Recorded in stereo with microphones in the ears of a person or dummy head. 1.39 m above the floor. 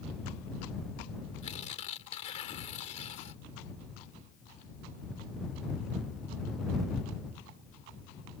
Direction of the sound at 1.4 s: 40° left (ahead or behind).